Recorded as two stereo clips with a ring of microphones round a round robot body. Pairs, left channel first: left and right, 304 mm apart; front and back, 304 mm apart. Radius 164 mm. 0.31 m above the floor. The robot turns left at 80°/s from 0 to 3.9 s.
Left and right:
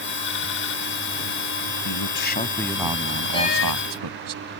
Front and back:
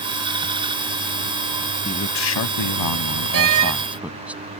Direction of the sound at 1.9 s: 70° left.